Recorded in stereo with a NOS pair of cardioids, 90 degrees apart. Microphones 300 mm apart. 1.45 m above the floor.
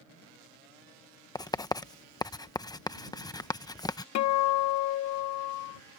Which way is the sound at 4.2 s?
65° left.